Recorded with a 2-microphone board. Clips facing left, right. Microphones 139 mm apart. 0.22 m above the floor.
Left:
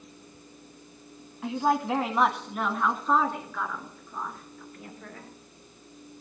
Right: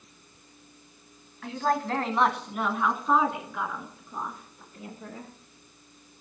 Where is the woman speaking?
20° left (ahead or behind), 1.3 m; by 5.3 s 25° right (ahead or behind), 3 m.